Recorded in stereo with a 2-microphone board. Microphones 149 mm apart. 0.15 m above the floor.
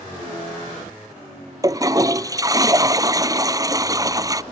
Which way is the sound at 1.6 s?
25° right (ahead or behind).